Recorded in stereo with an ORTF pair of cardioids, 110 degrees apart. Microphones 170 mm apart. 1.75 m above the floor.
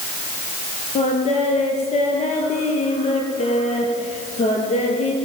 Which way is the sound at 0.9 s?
45° left.